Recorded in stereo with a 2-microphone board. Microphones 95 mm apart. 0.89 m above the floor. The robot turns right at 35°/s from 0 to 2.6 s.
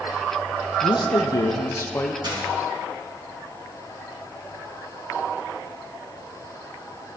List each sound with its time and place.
0.8 s a man speaking: 105° left, 0.6 m; by 2.1 s 150° left, 0.6 m
2.2 s a dropped coin: 50° right (ahead or behind), 3 m; by 2.5 s 60° right (ahead or behind), 3 m